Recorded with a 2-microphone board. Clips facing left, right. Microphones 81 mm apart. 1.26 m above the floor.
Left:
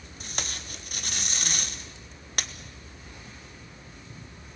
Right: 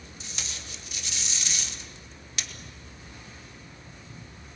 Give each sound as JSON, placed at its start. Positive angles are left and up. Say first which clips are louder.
{"t": 0.2, "sound": "tape being pulled", "louder": "left 6 dB", "side_deg": 50, "distance_m": 1.4}